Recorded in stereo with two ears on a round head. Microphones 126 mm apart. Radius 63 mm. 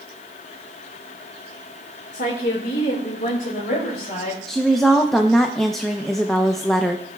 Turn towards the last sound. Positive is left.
turn(degrees=5)  # may be behind; listen again after turning